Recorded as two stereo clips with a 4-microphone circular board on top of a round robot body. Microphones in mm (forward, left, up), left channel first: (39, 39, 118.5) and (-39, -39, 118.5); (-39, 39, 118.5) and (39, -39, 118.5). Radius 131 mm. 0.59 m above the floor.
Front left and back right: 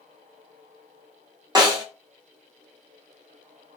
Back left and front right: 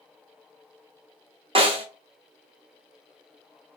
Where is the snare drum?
80° right, 0.9 m.